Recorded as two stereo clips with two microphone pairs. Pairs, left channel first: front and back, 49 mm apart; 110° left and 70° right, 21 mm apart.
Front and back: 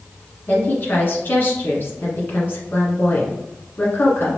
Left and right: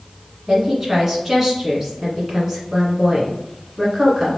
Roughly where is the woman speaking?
Ahead.